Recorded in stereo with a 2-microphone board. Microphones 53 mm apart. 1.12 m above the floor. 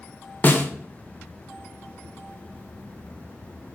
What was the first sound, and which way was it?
A snare drum, 35° left (ahead or behind).